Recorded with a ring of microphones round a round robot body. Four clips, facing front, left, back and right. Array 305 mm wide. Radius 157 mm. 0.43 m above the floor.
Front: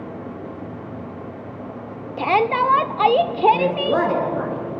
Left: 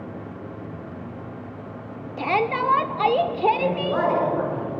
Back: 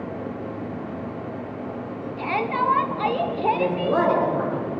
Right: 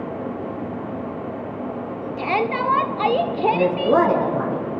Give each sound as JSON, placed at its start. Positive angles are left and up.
{"t": 2.2, "sound": "a shout", "azimuth_deg": -5, "distance_m": 1.1}
{"t": 3.5, "sound": "a woman speaking", "azimuth_deg": -80, "distance_m": 8.5}